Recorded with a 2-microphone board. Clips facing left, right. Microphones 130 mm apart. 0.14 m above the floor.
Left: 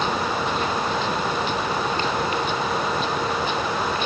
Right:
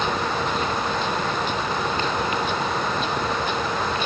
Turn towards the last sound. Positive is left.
No sound to turn to.